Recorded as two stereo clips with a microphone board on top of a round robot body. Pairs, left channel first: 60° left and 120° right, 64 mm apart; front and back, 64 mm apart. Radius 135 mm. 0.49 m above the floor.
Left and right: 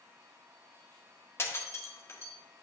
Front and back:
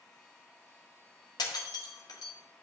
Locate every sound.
1.4 s breaking glass: 10° left, 1.4 m